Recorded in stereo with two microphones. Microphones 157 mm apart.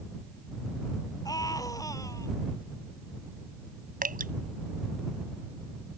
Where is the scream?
25° left (ahead or behind); by 2.3 s 20° left (ahead or behind).